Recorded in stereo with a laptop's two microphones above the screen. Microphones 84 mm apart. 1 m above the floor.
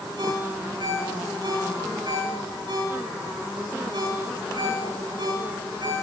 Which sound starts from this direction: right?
A ringtone, at 0.2 s.